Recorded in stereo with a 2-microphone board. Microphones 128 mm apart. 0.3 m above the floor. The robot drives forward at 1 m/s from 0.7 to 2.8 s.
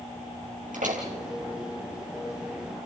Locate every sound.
0.7 s a door slam: 80° right, 4.5 m